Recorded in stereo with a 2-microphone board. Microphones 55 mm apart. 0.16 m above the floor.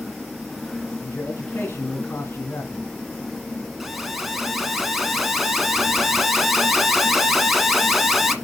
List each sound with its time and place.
1.0 s a man speaking: 40° left (ahead or behind), 2 m
3.8 s an alarm: 5° right (ahead or behind), 1.5 m